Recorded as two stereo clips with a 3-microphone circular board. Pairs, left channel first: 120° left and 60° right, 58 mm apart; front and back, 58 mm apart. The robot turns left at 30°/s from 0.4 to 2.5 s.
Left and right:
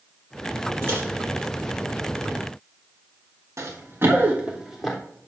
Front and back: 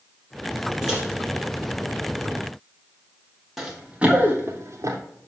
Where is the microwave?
100° right, 2.5 m; by 1.0 s 105° right, 2.5 m.